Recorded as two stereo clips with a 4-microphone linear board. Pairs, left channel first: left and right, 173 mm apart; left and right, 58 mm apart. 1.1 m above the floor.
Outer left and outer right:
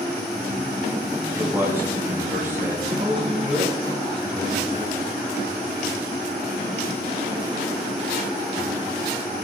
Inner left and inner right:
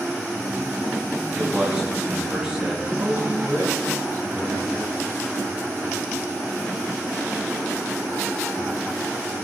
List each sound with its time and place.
1.4 s a man speaking: 15° right (ahead or behind), 9 m
2.9 s a man speaking: 30° right (ahead or behind), 9.5 m